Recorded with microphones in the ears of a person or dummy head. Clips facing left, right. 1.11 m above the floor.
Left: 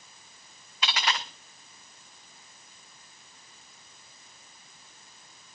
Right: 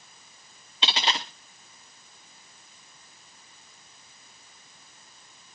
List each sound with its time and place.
0.8 s a dropped coin: 20° right (ahead or behind), 0.8 m